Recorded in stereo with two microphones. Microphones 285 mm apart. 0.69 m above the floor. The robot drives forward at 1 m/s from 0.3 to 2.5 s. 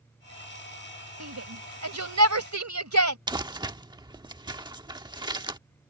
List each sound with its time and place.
1.2 s a shout: 75° right (ahead or behind)
3.3 s crumpling: 15° right (ahead or behind)